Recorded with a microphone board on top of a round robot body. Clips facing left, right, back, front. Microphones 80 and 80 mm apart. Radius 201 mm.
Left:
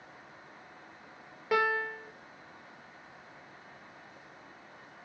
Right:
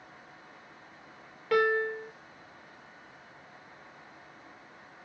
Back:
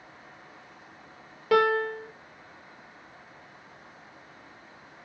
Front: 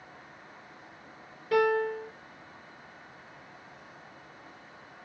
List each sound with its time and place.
1.5 s a piano: 170° left, 0.5 m